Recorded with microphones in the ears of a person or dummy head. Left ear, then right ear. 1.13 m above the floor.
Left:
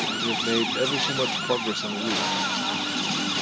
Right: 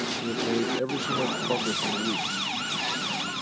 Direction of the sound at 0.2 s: 20° left (ahead or behind).